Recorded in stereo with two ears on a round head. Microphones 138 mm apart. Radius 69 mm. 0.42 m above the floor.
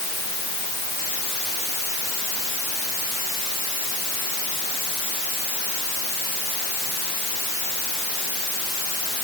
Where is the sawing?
I don't hear sawing.